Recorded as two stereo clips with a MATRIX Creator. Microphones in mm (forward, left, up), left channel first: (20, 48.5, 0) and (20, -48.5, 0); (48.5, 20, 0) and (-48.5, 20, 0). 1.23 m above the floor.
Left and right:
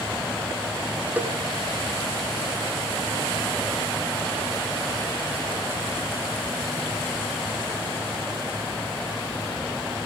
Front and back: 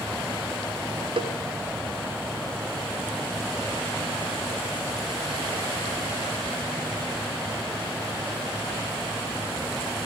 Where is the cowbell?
160° right, 1.3 m.